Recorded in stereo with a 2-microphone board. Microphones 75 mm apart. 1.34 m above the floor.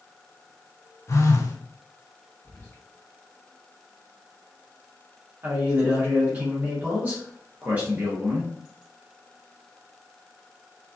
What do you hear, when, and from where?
1.1 s a phone buzzing: 40° left (ahead or behind), 0.6 m
2.4 s whispering: 30° left (ahead or behind), 1.6 m
5.4 s a man speaking: 25° right (ahead or behind), 1.2 m